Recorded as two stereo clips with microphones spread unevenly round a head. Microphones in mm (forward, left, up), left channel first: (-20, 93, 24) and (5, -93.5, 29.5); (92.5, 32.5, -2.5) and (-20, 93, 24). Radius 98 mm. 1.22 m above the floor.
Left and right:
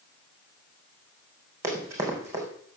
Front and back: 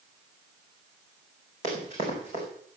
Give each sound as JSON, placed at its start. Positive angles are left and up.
{"t": 1.6, "sound": "running footsteps", "azimuth_deg": -155, "distance_m": 4.5}